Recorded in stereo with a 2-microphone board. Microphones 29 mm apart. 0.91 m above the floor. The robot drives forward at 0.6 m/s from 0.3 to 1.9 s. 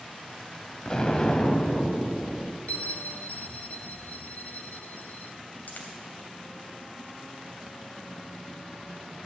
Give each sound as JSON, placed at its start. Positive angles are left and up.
{"t": 0.8, "sound": "an explosion", "side_deg": 30, "distance_m": 0.8}
{"t": 2.7, "sound": "a bell", "side_deg": 65, "distance_m": 0.9}
{"t": 5.7, "sound": "a dropped coin", "side_deg": 65, "distance_m": 2.5}